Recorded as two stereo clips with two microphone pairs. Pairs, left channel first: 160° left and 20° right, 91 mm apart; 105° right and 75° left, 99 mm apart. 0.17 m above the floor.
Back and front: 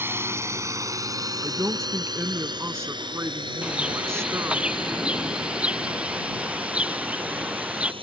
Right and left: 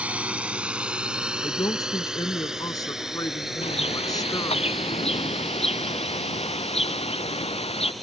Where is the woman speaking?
70° right.